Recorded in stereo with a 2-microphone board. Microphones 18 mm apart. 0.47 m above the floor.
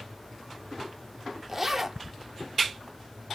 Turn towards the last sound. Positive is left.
turn(degrees=-20)  # may be behind; listen again after turning